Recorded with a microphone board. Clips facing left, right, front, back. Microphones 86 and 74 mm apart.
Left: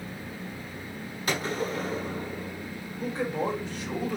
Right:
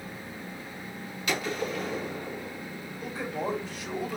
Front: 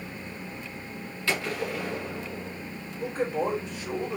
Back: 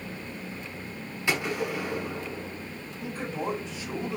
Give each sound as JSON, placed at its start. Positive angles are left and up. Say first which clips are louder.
{"t": 1.3, "sound": "a gunshot", "louder": "left 1 dB, back 1 dB", "azimuth_deg": 120, "distance_m": 1.2}
{"t": 3.0, "sound": "a man speaking", "louder": "left 4 dB, front 5 dB", "azimuth_deg": 35, "distance_m": 3.5}